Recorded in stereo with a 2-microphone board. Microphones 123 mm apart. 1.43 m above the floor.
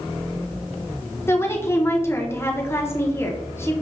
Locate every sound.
1.3 s a woman speaking: 20° left (ahead or behind), 0.9 m